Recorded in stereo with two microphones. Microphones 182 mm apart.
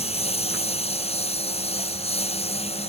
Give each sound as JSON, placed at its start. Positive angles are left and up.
{"t": 0.0, "sound": "a lawn mower", "side_deg": 35}